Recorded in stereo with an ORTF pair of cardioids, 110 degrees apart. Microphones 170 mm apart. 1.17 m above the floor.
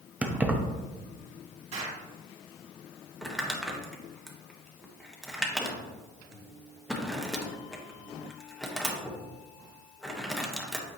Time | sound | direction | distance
0.2 | keys jangling | 10° right | 0.9 m
1.7 | an explosion | 40° right | 2 m
3.2 | crumpling | straight ahead | 1.3 m